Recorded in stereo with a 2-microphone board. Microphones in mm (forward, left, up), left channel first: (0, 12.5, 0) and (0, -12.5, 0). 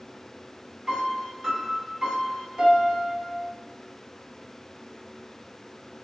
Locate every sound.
0.9 s a piano: 30° right (ahead or behind), 0.8 m